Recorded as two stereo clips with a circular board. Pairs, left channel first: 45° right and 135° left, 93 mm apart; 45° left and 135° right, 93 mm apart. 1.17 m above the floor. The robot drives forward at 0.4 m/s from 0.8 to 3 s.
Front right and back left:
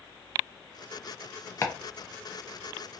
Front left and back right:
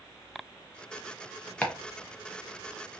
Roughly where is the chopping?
Ahead.